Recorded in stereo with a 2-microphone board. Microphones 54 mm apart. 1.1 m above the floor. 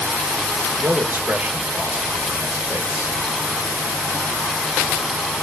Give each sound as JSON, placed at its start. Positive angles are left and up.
{"t": 0.8, "sound": "a man speaking", "side_deg": -35, "distance_m": 1.1}